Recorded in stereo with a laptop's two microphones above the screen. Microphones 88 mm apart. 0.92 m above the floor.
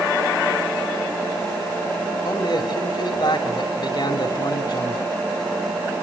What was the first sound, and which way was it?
A man speaking, 55° left (ahead or behind).